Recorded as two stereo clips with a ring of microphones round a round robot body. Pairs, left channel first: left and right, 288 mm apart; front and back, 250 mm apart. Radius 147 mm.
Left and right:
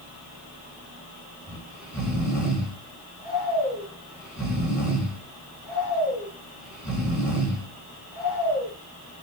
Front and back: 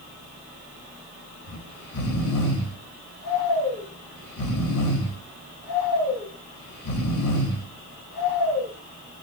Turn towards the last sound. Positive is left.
turn(degrees=-5)